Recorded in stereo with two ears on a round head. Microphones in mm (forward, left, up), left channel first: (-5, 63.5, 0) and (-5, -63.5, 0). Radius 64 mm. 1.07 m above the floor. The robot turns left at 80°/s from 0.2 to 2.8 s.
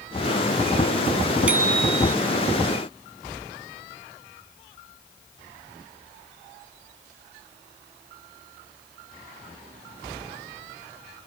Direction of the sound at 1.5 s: 10° right.